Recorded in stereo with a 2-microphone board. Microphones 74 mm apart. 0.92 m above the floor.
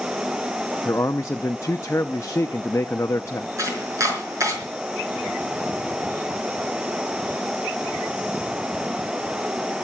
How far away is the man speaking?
About 0.8 m.